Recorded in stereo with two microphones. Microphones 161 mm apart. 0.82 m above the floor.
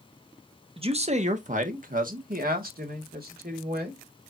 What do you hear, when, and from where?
0.8 s a man speaking: 35° right (ahead or behind), 0.9 m; by 4.0 s 75° right (ahead or behind), 2.5 m